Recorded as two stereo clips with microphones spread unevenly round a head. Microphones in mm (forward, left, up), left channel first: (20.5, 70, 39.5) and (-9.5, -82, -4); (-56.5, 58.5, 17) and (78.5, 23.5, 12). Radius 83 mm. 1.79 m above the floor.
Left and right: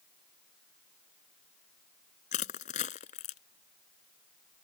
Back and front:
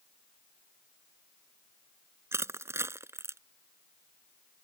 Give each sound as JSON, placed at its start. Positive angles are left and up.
{"t": 2.3, "sound": "crushing", "azimuth_deg": 55}